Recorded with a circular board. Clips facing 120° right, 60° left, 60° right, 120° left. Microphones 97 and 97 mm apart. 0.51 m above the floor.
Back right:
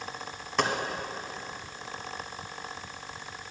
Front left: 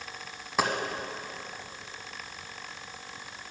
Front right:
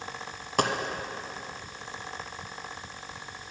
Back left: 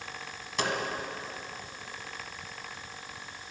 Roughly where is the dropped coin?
Ahead right.